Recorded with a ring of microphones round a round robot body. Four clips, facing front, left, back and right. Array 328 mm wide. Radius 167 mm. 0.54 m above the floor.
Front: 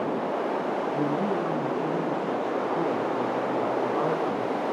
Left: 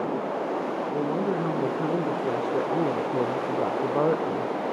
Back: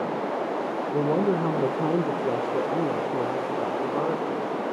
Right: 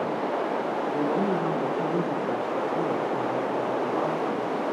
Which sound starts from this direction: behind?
A woman speaking, at 0.9 s.